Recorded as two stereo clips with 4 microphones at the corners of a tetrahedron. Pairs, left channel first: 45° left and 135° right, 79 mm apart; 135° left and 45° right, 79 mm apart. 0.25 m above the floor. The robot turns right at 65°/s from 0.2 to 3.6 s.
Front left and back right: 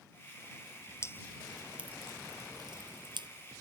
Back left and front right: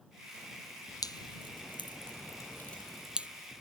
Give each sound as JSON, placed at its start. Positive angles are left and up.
{"t": 1.0, "sound": "dripping", "azimuth_deg": 100}